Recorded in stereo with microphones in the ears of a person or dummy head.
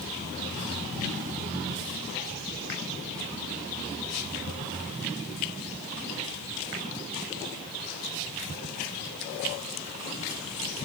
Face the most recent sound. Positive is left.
No sound to turn to.